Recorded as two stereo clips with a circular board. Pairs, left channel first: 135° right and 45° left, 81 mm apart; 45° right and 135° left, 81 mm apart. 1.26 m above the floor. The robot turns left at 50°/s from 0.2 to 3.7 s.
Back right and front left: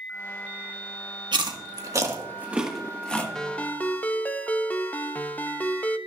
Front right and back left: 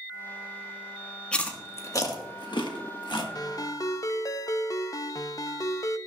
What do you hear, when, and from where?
1.3 s chewing: 30° left, 1.4 m; by 3.2 s 65° right, 1.4 m
3.4 s a ringtone: 55° right, 0.7 m; by 6.0 s 70° right, 0.7 m